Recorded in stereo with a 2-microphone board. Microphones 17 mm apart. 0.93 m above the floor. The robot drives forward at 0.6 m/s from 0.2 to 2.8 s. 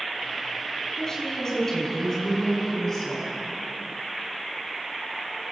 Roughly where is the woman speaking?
Left.